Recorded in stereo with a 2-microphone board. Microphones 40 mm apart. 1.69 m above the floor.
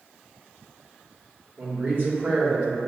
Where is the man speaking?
50° right (ahead or behind), 1.2 m.